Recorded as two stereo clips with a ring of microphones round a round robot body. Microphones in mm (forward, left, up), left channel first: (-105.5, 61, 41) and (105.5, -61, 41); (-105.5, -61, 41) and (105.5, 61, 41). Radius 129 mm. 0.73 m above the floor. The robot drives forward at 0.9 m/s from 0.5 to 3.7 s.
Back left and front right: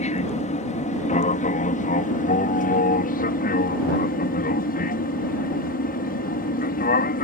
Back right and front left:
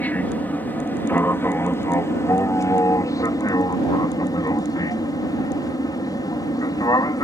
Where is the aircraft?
135° left; by 7.2 s 145° left.